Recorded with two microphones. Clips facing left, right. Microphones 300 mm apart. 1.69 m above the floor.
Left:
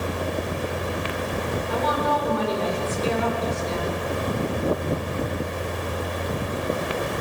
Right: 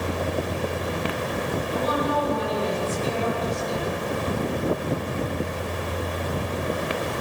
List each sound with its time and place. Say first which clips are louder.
1.7 s a woman speaking: even; 90° left, 7.5 m